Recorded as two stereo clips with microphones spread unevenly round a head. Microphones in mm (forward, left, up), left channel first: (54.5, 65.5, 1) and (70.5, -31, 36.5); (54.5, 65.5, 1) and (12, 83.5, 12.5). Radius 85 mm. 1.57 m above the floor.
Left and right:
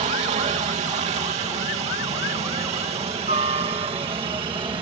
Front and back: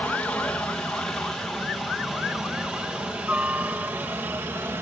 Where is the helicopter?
95° right; by 4.8 s 145° right.